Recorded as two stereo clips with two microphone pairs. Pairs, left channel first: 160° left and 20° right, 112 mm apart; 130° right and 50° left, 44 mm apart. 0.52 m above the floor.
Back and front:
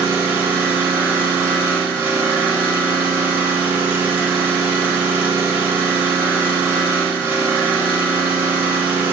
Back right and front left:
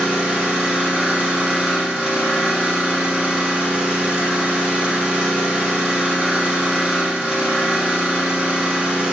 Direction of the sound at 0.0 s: 25° left.